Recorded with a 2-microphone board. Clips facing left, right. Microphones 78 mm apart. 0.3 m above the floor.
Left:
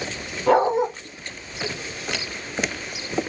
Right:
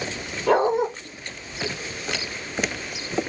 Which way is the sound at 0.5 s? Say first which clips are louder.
Left 2 dB; 35° left (ahead or behind).